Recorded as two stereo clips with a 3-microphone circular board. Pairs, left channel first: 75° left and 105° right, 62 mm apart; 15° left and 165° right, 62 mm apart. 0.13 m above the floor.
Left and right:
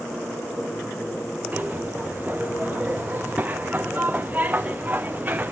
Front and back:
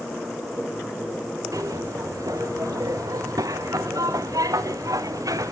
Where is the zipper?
165° right, 2.5 m.